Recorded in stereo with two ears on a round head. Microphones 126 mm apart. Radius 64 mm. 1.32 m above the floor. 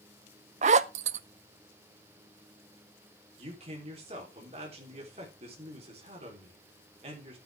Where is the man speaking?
45° right (ahead or behind), 3.5 m.